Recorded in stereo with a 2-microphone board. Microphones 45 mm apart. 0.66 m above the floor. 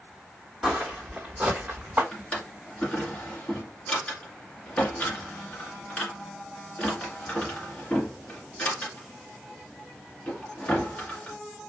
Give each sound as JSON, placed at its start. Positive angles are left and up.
{"t": 0.6, "sound": "footsteps", "side_deg": -5, "distance_m": 1.6}
{"t": 2.1, "sound": "a drawer", "side_deg": 25, "distance_m": 1.9}